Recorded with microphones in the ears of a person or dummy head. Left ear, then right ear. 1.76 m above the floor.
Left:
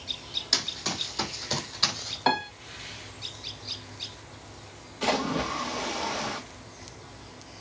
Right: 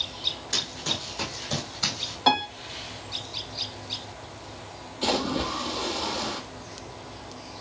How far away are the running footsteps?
About 3.5 m.